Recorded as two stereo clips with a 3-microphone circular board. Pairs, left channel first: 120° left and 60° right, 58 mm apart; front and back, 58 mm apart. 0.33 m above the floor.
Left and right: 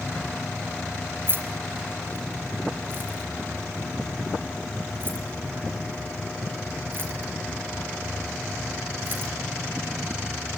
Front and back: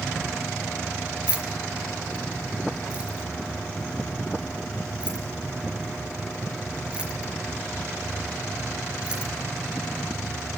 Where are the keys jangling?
105° right, 3.5 m.